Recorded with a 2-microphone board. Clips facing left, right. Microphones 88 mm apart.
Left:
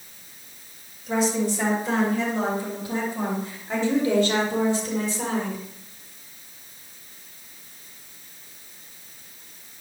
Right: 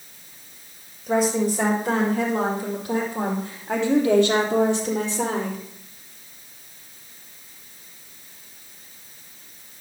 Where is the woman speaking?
55° right (ahead or behind), 7 m; by 5.6 s 65° right (ahead or behind), 4 m.